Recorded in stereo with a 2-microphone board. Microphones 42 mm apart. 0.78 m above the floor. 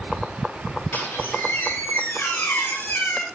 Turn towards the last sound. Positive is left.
turn(degrees=75)  # may be behind; listen again after turning